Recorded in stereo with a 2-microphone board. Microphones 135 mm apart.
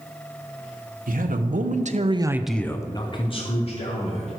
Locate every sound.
1.1 s a man speaking: 85° right, 1.4 m; by 4.3 s 50° left (ahead or behind), 2 m